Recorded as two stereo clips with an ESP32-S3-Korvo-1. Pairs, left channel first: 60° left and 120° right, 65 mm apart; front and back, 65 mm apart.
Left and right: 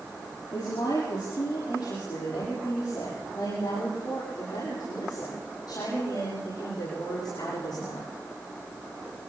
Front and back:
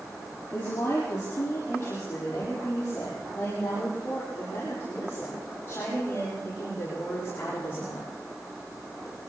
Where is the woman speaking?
55° left, 7.5 m.